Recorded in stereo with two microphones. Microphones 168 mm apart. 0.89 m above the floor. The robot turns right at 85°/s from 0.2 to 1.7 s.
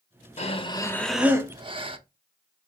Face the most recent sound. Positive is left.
turn(degrees=-130)